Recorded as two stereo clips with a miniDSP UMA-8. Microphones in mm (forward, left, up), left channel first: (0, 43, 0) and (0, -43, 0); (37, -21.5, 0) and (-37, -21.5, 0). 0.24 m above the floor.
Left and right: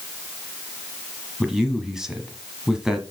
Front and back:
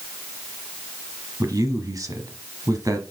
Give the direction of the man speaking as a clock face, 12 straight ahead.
6 o'clock.